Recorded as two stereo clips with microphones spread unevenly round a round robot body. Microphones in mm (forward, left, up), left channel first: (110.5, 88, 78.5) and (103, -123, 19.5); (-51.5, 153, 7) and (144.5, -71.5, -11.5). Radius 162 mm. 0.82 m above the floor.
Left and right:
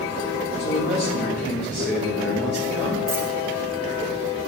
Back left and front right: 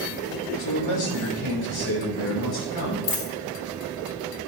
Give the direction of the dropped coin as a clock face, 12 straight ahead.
6 o'clock.